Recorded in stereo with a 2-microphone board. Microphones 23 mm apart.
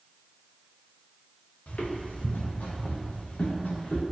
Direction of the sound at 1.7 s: 85° left.